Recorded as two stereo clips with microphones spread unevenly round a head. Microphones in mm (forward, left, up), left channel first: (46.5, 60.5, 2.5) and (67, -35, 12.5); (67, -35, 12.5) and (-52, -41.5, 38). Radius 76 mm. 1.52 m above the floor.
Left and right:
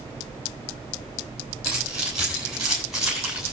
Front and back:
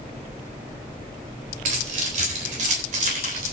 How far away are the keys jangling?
About 7.5 m.